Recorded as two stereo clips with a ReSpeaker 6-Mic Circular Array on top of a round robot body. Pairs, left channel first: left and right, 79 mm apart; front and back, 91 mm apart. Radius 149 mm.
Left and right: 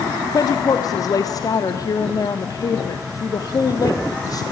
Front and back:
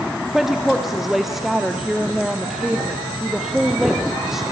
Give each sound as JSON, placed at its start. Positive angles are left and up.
{"t": 0.3, "sound": "a woman speaking", "azimuth_deg": 95, "distance_m": 1.3}